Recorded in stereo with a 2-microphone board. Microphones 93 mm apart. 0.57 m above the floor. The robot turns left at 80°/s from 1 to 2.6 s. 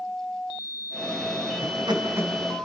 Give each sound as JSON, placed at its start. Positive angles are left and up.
{"t": 1.6, "sound": "laughter", "side_deg": -70, "distance_m": 3.5}